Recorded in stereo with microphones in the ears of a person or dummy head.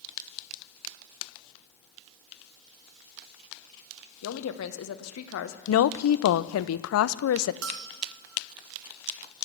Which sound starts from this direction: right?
A bell, at 7.6 s.